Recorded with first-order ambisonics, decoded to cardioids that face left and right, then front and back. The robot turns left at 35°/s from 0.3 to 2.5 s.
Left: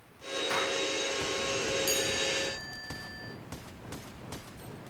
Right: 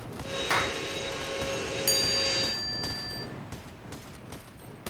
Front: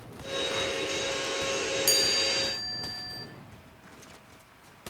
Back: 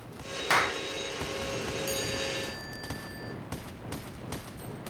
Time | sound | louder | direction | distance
0.5 | a clap | right 4 dB, back 8 dB | 155° right | 0.9 m
1.9 | a chime | right 4 dB, front 10 dB | 30° right | 1.8 m